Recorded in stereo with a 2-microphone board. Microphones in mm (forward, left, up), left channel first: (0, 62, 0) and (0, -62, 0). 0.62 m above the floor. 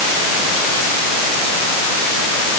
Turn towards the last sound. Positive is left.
No sound to turn to.